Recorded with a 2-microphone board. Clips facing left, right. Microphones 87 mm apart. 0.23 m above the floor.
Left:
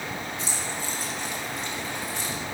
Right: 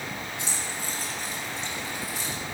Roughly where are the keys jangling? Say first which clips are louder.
Left 2 dB; right.